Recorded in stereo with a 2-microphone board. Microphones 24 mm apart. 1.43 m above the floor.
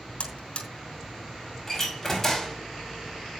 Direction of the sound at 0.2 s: 50° left (ahead or behind).